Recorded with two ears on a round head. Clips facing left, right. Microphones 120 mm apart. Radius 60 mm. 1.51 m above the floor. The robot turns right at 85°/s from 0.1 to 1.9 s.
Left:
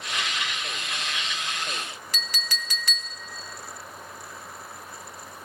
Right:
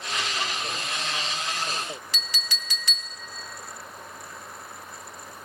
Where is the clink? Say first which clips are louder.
Left 2 dB; 40° left (ahead or behind), 0.6 m.